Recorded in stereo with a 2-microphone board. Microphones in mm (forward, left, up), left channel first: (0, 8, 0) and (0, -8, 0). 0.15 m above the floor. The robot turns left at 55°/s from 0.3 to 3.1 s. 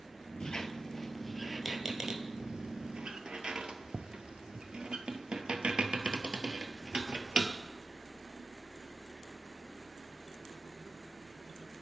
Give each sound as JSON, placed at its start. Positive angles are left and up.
{"t": 0.4, "sound": "a squeak", "side_deg": 50, "distance_m": 0.6}